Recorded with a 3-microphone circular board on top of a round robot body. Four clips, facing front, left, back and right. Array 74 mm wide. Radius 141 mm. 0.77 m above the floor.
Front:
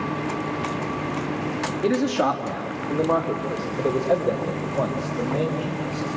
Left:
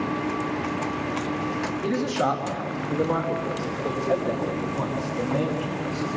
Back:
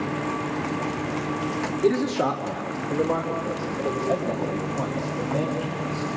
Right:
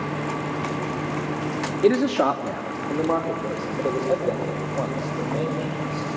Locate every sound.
1.8 s a man speaking: 80° right, 1.7 m; by 6.1 s 15° right, 6 m